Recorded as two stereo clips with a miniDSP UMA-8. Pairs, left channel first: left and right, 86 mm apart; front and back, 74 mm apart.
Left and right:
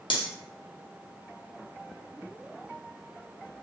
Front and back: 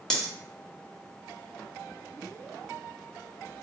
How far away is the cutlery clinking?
About 0.5 m.